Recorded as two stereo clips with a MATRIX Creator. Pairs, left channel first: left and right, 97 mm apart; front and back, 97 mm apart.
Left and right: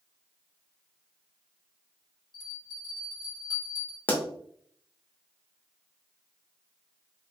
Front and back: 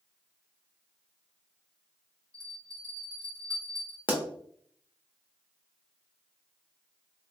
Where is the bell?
130° left, 1.5 m.